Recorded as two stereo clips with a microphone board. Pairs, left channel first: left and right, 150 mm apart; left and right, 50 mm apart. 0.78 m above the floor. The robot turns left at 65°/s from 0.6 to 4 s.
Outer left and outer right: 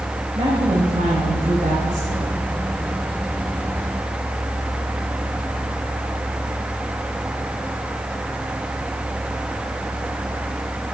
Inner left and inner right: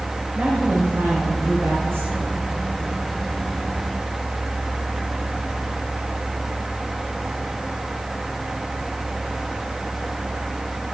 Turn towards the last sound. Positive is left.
turn(degrees=105)